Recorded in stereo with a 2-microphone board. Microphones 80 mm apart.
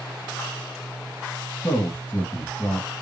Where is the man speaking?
25° left (ahead or behind), 1.9 m.